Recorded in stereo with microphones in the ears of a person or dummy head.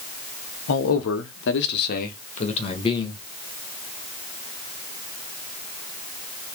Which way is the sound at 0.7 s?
80° left.